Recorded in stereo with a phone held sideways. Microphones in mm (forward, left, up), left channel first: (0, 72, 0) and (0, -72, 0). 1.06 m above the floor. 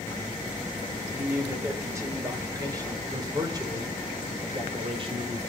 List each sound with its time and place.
1.1 s a man speaking: 15° right (ahead or behind), 5.5 m; by 5.4 s 40° right (ahead or behind), 3.5 m